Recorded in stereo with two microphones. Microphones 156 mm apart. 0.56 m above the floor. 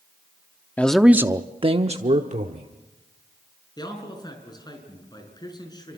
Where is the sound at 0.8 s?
10° left (ahead or behind), 0.7 m; by 2.7 s 55° right (ahead or behind), 1.4 m.